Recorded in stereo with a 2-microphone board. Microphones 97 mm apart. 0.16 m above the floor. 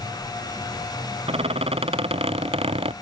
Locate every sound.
1.3 s a squeak: 80° right